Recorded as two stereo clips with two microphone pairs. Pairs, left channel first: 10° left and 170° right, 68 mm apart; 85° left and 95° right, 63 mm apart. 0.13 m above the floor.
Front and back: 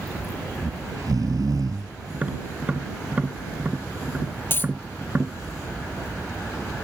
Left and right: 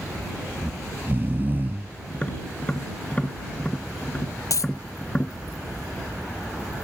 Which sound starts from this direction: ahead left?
A dropped coin, at 4.5 s.